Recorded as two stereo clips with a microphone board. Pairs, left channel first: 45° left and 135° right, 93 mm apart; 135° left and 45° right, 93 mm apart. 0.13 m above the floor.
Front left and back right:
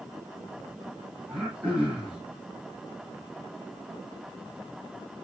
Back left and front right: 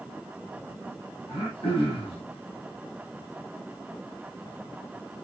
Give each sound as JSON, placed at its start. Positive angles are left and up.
{"t": 1.3, "sound": "throat clearing", "azimuth_deg": 145, "distance_m": 7.0}